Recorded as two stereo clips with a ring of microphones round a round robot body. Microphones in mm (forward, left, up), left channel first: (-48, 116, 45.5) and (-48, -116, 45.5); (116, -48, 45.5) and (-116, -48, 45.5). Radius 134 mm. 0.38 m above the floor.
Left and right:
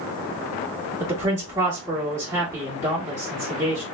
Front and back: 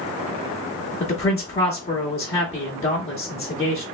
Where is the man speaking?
30° right, 1.3 m.